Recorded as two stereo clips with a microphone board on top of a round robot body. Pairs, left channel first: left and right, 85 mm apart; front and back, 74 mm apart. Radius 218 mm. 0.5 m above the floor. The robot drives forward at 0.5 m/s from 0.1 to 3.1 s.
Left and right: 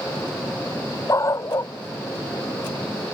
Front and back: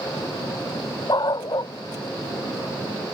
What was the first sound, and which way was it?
A dog barking, 35° left.